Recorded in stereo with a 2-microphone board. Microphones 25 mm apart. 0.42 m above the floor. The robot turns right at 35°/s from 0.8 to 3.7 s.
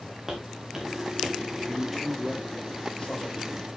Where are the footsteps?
15° right (ahead or behind), 5 m; by 1.4 s centre (ahead or behind), 4 m.